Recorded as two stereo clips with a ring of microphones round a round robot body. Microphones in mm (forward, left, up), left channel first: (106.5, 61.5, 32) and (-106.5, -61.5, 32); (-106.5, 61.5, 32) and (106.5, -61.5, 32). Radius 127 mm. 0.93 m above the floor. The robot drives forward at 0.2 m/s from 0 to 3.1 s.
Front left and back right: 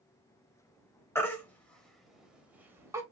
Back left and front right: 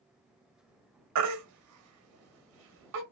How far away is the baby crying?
About 1.0 m.